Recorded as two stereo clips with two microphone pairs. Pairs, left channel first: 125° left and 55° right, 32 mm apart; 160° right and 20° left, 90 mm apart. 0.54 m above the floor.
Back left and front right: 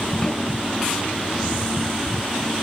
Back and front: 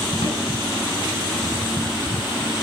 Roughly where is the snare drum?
Behind.